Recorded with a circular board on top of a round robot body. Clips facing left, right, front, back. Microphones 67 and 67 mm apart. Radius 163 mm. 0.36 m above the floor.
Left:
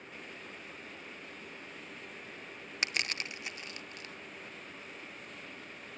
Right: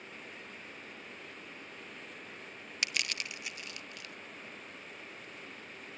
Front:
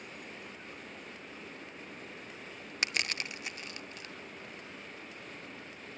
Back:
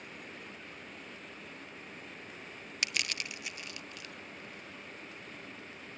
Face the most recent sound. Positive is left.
turn(degrees=45)